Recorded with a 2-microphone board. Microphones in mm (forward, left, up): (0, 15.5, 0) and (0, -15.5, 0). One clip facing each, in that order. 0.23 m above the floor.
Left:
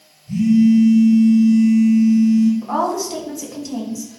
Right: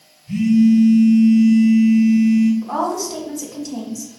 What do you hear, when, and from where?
0.3 s a phone buzzing: 55° right (ahead or behind), 2.5 m
2.6 s a woman speaking: 10° left (ahead or behind), 1.8 m